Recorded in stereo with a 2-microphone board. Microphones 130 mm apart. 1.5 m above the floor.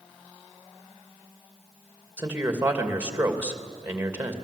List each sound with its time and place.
2.2 s a man speaking: 15° right (ahead or behind), 2.5 m